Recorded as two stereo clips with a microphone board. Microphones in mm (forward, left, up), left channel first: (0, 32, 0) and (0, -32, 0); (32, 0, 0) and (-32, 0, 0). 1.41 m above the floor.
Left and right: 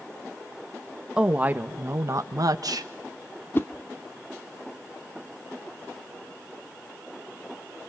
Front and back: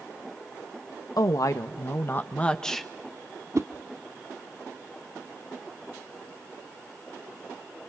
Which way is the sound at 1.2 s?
20° right.